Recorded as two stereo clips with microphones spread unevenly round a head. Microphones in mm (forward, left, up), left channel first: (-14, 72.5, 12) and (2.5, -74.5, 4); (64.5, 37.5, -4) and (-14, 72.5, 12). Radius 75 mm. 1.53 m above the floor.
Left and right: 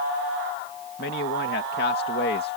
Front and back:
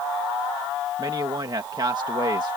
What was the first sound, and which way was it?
A man speaking, 115° left.